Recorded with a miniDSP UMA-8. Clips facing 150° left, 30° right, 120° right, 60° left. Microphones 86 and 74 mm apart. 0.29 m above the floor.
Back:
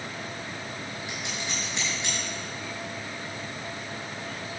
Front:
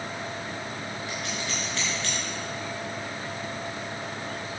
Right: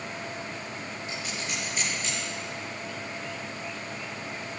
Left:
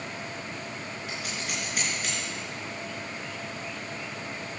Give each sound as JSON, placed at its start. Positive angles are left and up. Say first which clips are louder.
{"t": 1.1, "sound": "scissors", "louder": "front 2 dB, even", "azimuth_deg": 80, "distance_m": 5.0}